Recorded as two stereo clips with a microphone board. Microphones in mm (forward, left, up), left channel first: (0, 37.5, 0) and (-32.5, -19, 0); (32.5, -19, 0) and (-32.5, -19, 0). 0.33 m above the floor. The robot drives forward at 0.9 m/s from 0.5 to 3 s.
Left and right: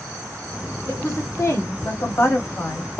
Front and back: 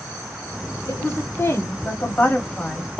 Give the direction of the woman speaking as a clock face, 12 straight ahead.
11 o'clock.